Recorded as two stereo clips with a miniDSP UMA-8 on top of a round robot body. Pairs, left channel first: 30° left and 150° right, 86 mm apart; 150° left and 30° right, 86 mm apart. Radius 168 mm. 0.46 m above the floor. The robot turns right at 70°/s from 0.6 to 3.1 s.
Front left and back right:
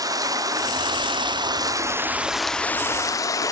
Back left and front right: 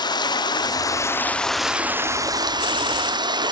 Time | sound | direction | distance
0.0 | running water | 170° left | 1.0 m